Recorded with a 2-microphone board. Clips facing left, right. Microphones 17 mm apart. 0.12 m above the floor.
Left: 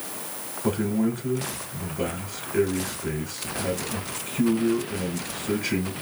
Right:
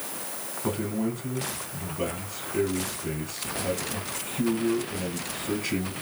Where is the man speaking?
35° left (ahead or behind), 1.7 m.